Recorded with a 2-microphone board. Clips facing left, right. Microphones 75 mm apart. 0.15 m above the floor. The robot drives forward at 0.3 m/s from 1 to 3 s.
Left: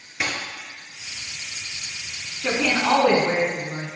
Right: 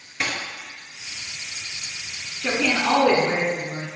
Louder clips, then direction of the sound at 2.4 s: Even; 15° left (ahead or behind).